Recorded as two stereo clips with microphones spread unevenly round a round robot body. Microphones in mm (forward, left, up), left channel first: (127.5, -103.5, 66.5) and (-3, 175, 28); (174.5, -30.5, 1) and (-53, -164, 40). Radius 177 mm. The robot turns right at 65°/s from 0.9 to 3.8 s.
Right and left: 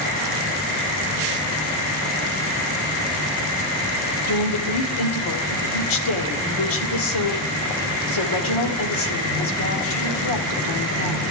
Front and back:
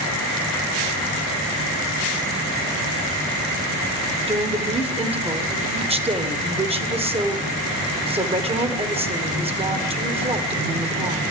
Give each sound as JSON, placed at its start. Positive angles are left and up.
{"t": 4.3, "sound": "a woman speaking", "azimuth_deg": -80, "distance_m": 2.0}